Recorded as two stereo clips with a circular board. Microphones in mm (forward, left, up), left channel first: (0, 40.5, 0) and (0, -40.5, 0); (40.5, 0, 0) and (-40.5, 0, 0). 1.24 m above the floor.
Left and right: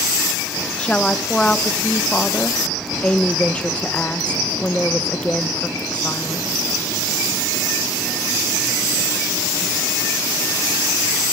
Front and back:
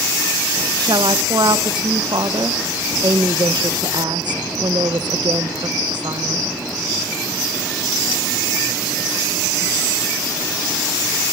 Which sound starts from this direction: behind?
A woman speaking, at 0.8 s.